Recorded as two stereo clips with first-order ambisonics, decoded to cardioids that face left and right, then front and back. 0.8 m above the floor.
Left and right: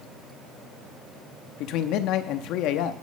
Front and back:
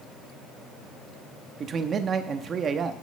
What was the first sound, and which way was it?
A man speaking, 120° left.